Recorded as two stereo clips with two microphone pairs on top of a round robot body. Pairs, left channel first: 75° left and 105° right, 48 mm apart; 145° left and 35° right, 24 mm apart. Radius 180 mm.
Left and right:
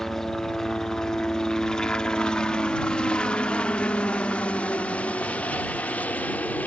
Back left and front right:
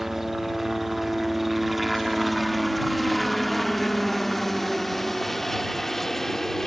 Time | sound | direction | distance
0.0 | a helicopter | 20° left | ?